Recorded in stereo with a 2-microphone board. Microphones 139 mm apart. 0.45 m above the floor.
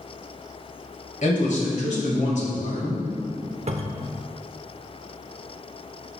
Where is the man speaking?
60° left (ahead or behind), 1.8 m.